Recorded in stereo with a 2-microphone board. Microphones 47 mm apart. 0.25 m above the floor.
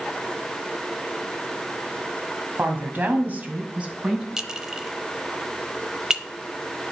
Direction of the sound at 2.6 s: 40° right (ahead or behind).